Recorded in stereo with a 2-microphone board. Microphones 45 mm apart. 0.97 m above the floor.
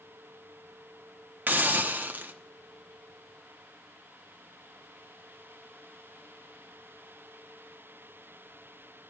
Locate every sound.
1.5 s a hiss: 45° right (ahead or behind), 0.9 m